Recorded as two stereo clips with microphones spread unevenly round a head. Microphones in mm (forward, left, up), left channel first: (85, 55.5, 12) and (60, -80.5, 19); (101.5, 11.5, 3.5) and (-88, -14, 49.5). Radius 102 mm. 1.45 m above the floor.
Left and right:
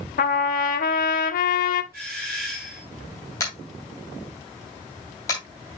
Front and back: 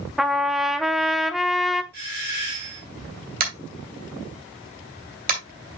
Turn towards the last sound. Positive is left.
turn(degrees=155)